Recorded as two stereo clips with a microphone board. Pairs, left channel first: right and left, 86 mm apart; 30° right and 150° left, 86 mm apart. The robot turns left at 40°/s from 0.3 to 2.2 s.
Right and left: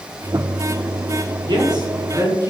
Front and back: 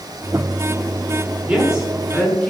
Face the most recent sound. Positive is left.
turn(degrees=50)